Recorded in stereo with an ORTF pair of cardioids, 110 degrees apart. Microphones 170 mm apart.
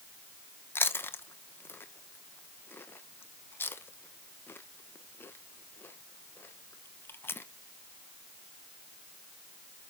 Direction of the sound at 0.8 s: 10° left.